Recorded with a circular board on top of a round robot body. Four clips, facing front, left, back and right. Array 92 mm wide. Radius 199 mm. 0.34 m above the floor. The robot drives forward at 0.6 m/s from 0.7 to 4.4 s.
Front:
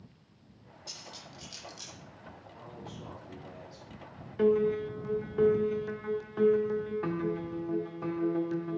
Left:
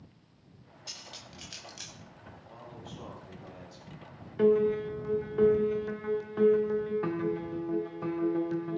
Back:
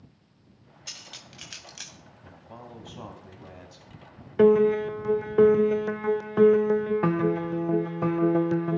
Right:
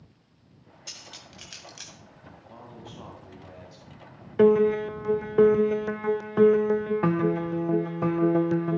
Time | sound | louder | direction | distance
0.9 | cutlery clinking | right 1 dB, front 1 dB | 155° right | 2 m
2.2 | a man speaking | right 3 dB, back 6 dB | 165° right | 3.5 m
4.4 | a piano | right 5 dB, back 7 dB | 135° right | 0.6 m